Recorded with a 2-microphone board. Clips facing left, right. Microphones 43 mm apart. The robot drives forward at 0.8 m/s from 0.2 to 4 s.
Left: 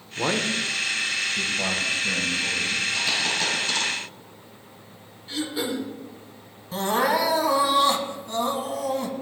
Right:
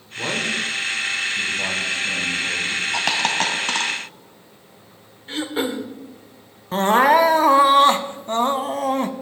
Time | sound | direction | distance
0.2 | a man speaking | 20° left (ahead or behind) | 0.9 m
2.9 | a dropped coin | 75° right (ahead or behind) | 1.1 m
5.3 | throat clearing | 45° right (ahead or behind) | 0.8 m
6.7 | crying | 45° right (ahead or behind) | 0.5 m